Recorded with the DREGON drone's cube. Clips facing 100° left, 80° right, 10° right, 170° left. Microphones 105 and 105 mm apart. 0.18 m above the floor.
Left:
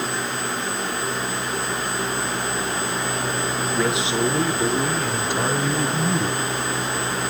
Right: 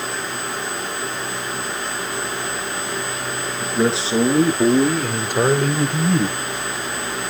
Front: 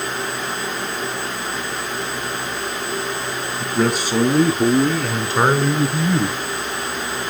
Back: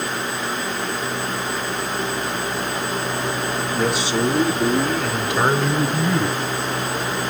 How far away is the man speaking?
About 2.5 m.